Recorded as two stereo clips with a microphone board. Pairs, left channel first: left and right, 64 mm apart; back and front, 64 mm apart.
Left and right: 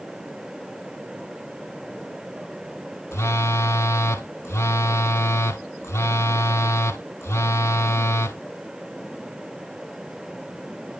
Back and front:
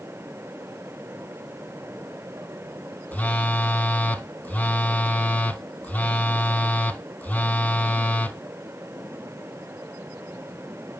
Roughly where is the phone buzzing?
Behind left.